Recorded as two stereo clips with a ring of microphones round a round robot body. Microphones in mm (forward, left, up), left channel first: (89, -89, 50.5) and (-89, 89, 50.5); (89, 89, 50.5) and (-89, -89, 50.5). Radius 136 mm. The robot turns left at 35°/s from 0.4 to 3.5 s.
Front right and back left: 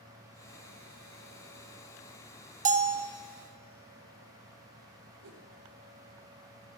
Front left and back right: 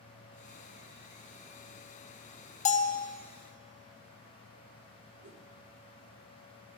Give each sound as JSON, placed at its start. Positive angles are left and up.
{"t": 2.6, "sound": "a bell", "azimuth_deg": 90, "distance_m": 0.5}
{"t": 5.2, "sound": "a whoosh", "azimuth_deg": 175, "distance_m": 1.7}